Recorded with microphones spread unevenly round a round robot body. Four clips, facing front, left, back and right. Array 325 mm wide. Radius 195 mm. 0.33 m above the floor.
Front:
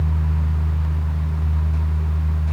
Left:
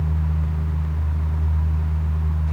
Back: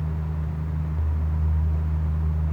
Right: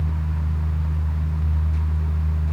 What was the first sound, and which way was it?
Only background noise.